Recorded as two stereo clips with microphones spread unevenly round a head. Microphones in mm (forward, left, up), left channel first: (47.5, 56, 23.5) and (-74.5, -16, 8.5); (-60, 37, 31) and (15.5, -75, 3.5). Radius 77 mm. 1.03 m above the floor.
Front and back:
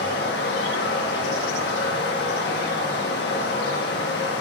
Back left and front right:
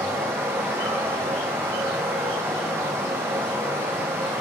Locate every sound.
0.0 s running water: 20° left, 1.6 m